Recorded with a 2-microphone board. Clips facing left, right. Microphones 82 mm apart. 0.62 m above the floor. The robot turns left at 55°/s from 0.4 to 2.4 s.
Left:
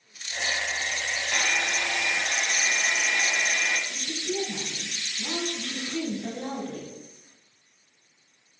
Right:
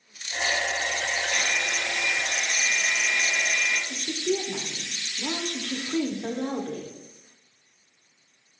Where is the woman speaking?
50° right (ahead or behind), 0.8 m.